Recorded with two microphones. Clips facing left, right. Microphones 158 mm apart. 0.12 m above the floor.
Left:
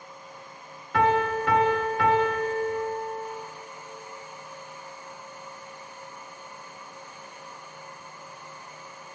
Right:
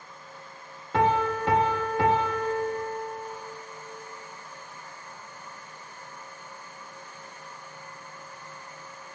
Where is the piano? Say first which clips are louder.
Left 1 dB; 25° right (ahead or behind), 0.8 m.